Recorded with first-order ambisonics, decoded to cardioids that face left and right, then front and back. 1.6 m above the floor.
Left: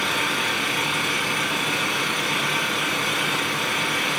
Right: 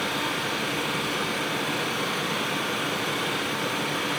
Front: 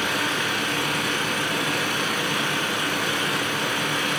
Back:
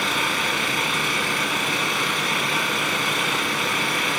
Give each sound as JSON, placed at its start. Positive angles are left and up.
{"t": 0.0, "sound": "an engine running", "azimuth_deg": 140, "distance_m": 9.0}